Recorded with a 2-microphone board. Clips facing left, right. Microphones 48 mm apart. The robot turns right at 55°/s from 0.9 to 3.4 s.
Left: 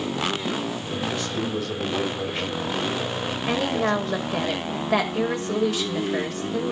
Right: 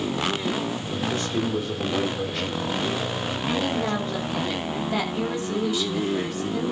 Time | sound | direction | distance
1.1 | a man speaking | 50° right | 4.5 m
3.5 | a woman speaking | 80° left | 5.5 m